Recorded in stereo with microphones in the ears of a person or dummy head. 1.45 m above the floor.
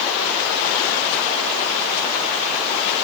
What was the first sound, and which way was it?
Only background noise.